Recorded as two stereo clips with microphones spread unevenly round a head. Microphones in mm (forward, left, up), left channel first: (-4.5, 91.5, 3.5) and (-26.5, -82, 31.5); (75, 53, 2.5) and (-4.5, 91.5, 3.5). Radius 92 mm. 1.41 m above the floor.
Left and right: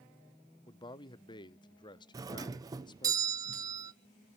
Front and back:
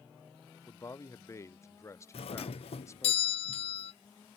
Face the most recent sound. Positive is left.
turn(degrees=-25)